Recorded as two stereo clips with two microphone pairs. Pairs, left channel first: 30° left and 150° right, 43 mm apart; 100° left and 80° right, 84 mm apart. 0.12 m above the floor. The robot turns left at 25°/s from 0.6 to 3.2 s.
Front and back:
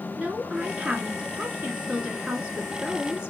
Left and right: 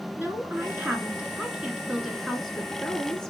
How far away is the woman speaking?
About 1.3 m.